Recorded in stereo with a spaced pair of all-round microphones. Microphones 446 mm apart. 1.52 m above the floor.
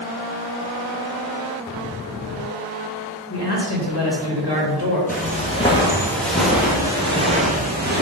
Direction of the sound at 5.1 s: 20° left (ahead or behind).